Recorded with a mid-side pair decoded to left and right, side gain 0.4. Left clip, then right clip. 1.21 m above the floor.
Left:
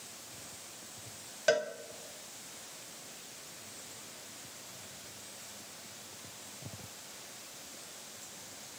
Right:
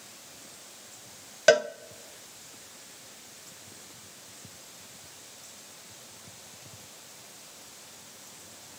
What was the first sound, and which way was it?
A cowbell, 65° right.